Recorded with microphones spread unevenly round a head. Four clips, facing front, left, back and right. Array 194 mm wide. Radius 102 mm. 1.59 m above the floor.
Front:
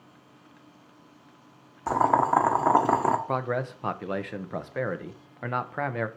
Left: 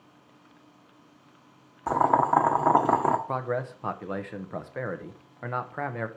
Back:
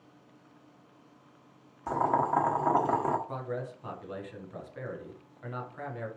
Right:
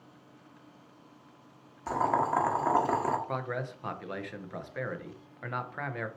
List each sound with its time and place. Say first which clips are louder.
1.9 s boiling: left 6 dB, front 5 dB; 50° left, 1.3 m
3.3 s a man speaking: left 5 dB, front 8 dB; 25° left, 1.1 m